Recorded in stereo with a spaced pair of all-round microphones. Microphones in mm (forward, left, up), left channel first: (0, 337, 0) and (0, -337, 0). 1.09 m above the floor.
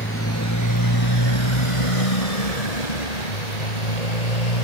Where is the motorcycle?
20° left (ahead or behind); by 4.7 s 70° left (ahead or behind).